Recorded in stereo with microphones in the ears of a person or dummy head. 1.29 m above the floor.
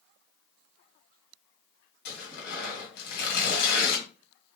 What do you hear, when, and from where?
2.0 s tearing paper: 55° left (ahead or behind), 1.8 m